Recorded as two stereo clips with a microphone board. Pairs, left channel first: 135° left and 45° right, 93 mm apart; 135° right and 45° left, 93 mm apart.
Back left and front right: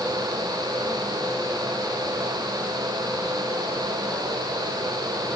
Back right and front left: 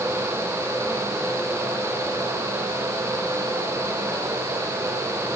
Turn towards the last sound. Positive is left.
No sound to turn to.